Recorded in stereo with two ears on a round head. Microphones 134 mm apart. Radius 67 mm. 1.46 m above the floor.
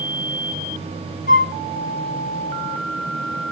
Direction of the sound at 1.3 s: 60° left (ahead or behind).